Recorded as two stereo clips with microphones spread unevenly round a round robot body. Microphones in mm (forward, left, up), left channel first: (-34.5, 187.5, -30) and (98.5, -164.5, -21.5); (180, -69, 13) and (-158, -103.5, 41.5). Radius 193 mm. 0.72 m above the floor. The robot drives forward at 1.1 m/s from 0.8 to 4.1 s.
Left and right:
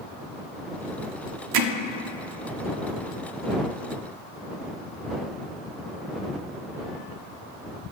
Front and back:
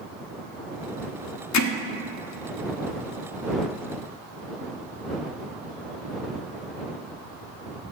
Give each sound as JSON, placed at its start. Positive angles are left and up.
{"t": 1.5, "sound": "hammering", "azimuth_deg": -35, "distance_m": 1.0}